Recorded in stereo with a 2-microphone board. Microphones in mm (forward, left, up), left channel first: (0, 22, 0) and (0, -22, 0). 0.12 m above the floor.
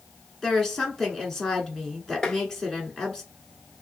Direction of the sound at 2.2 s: 20° left (ahead or behind).